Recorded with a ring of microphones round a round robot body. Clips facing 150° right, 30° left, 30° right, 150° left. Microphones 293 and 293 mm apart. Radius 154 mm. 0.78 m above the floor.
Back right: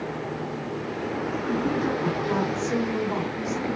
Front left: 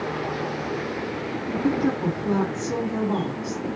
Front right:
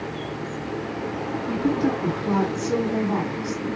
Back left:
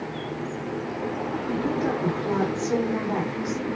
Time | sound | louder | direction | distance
1.5 | a woman speaking | front left 4 dB, front right 4 dB | 5° left | 2.5 m